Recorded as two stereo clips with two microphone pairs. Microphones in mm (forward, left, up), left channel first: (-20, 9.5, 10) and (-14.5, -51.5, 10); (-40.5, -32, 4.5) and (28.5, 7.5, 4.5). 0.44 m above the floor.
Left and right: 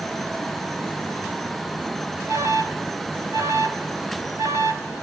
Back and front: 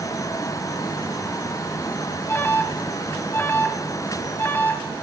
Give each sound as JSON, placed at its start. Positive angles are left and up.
{"t": 2.3, "sound": "an alarm", "azimuth_deg": -105, "distance_m": 2.5}